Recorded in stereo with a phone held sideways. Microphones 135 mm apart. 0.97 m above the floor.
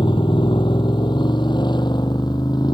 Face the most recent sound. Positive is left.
turn(degrees=35)  # may be behind; listen again after turning